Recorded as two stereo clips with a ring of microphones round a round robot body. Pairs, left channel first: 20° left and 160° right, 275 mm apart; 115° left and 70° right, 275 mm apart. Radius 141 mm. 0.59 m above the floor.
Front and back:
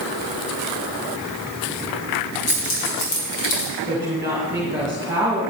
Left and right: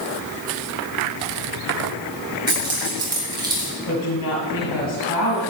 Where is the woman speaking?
125° left, 2.5 m.